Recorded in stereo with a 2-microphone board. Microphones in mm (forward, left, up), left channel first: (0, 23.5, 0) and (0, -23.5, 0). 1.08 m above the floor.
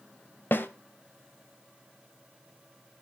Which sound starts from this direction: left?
A snare drum, at 0.5 s.